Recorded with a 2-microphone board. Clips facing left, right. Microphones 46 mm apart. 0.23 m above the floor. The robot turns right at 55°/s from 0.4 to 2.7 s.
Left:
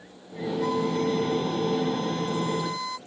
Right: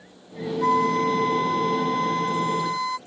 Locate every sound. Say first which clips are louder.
0.6 s a flute: right 6 dB; 140° right; by 3.0 s 25° right